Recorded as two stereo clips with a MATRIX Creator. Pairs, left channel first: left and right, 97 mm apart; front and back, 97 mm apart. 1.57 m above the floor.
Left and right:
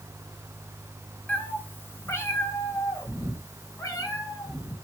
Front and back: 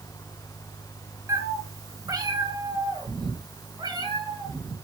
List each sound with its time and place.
1.3 s a cat meowing: 150° left, 1.6 m; by 4.7 s 140° left, 4 m